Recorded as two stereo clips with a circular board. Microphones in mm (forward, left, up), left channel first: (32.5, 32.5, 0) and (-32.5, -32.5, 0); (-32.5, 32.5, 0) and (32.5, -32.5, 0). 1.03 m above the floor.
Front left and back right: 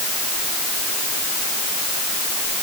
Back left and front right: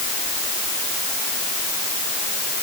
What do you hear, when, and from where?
Only background noise.